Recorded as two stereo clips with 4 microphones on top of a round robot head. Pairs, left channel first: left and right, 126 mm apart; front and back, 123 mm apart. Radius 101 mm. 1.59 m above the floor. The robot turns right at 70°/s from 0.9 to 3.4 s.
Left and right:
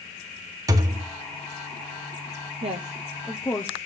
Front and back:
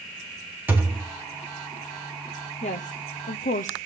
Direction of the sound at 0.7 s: 115° right.